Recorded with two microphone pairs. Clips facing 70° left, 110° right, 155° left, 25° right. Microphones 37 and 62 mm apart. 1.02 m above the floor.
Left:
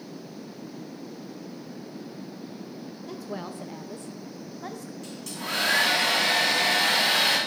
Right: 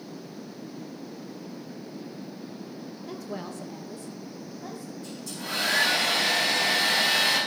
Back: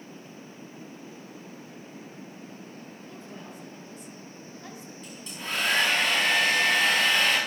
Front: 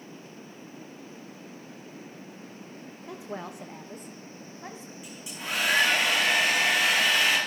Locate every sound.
3.1 s a woman speaking: 30° right, 0.7 m; by 4.9 s 45° left, 1.4 m
5.0 s a hair dryer: 55° left, 6 m